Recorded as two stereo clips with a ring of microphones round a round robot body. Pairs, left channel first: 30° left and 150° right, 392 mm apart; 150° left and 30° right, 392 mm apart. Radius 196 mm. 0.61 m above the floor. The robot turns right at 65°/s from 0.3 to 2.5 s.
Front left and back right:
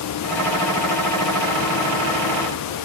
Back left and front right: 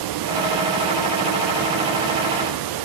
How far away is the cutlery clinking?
I don't hear cutlery clinking.